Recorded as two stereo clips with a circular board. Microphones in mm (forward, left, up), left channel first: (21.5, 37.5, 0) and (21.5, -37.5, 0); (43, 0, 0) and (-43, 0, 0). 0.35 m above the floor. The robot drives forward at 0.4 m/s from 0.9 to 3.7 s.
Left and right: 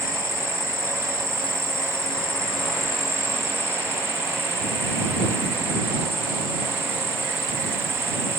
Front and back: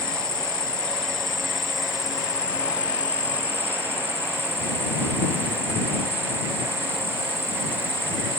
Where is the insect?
80° right; by 8.4 s 125° right.